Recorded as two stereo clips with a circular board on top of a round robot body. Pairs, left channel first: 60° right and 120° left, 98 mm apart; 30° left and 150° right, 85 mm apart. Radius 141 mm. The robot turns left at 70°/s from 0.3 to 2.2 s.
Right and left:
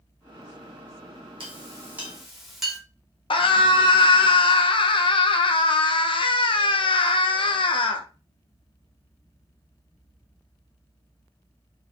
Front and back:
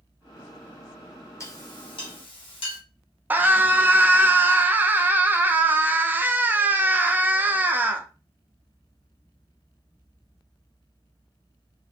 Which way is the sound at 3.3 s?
85° right.